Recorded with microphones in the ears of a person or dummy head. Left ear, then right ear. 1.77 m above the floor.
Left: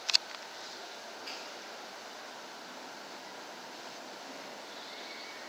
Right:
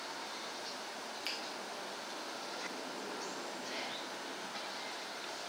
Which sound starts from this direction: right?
A finger snap, at 1.2 s.